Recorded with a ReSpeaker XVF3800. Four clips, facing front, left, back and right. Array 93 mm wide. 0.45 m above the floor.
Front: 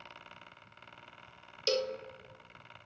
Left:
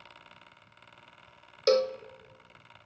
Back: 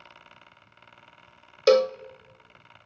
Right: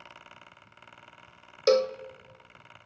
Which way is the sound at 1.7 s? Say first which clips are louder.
Right 2 dB, back 14 dB; 175° right.